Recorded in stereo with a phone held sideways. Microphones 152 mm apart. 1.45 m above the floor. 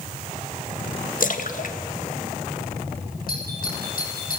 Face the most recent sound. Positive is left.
turn(degrees=75)  # may be behind; listen again after turning